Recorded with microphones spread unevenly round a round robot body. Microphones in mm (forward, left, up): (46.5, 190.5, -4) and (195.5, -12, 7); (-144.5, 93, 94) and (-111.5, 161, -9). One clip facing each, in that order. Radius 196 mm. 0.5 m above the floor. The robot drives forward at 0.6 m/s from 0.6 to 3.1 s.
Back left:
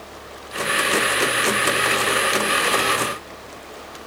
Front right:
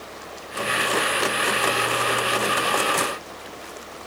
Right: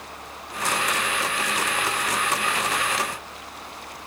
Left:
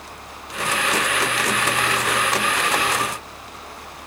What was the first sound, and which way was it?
Only background noise.